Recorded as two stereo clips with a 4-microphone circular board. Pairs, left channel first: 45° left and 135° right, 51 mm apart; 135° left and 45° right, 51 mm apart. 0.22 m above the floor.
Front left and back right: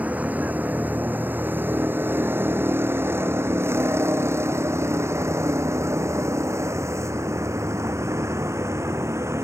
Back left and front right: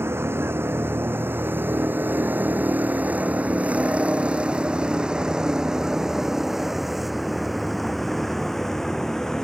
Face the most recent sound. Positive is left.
turn(degrees=-145)